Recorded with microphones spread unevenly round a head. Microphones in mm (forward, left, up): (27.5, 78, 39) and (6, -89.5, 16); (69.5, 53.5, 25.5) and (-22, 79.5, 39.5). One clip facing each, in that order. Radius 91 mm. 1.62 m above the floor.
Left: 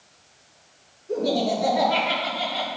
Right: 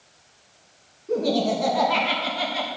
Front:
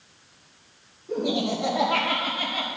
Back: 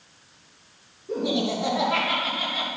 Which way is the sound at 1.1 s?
115° right.